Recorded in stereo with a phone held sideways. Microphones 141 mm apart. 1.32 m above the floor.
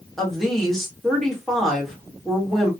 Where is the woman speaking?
Centre (ahead or behind), 1.5 m.